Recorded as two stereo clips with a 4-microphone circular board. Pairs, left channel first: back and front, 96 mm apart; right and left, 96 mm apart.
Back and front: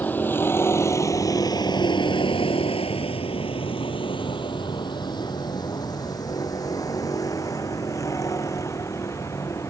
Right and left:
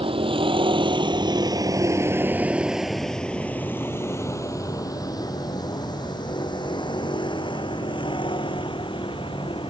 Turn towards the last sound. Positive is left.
turn(degrees=-120)